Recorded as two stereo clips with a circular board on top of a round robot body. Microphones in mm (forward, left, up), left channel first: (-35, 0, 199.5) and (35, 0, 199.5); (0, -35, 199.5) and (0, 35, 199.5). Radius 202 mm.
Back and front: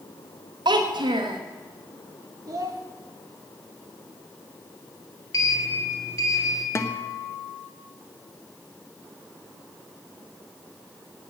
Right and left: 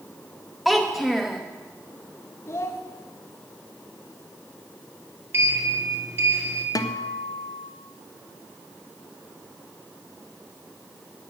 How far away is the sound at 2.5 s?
About 0.7 m.